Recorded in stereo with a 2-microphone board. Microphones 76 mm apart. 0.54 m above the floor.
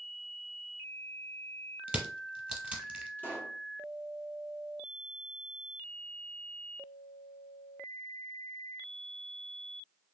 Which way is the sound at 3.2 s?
20° left (ahead or behind).